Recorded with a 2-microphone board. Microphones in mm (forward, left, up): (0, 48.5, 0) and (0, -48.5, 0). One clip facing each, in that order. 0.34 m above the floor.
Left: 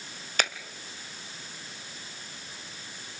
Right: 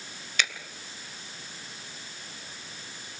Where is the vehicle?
No vehicle in this recording.